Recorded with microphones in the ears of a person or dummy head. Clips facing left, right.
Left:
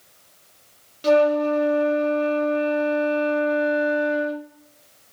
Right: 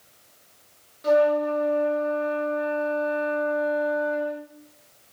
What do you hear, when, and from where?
1.0 s a flute: 45° left (ahead or behind), 0.8 m